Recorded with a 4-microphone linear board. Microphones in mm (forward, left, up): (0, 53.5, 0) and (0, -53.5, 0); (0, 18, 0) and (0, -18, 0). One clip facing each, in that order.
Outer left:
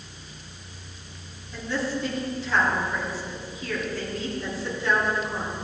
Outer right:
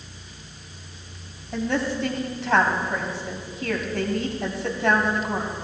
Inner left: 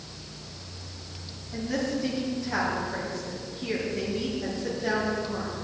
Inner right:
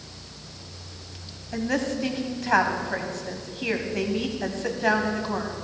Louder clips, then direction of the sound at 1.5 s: Outer right 4 dB, inner right 3 dB; 70° right (ahead or behind).